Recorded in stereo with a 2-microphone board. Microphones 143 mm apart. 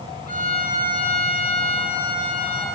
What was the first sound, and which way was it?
A violin, 80° left.